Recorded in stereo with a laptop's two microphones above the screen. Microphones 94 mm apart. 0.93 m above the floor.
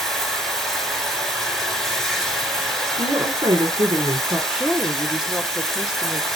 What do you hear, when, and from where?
0.0 s running water: 5° left (ahead or behind), 3.5 m
3.0 s a woman speaking: 50° right (ahead or behind), 2.5 m
4.5 s a woman speaking: 5° right (ahead or behind), 1.8 m